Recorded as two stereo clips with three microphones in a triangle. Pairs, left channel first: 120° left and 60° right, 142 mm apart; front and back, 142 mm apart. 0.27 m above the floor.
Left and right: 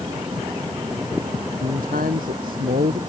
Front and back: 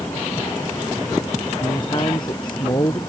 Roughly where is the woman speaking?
Ahead right.